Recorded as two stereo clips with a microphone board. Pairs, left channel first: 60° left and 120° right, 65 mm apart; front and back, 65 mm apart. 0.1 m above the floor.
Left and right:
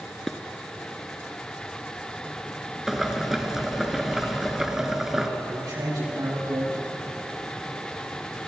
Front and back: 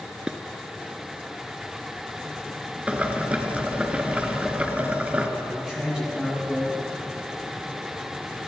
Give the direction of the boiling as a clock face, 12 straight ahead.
6 o'clock.